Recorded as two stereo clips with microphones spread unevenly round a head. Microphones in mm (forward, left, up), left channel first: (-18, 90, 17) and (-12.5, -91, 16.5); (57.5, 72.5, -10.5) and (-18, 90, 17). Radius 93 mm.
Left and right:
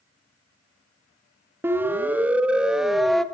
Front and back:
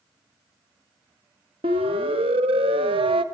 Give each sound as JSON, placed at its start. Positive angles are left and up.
{"t": 1.6, "sound": "a siren", "azimuth_deg": -165, "distance_m": 2.5}